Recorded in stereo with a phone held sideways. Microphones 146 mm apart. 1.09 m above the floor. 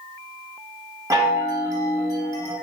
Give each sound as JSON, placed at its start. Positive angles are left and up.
{"t": 1.1, "sound": "a chime", "side_deg": -25, "distance_m": 0.8}